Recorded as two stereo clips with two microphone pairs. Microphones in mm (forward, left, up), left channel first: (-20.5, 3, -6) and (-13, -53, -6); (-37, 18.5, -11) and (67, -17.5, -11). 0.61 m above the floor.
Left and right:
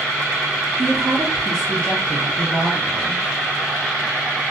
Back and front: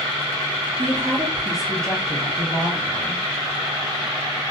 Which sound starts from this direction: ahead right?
A woman speaking, at 0.8 s.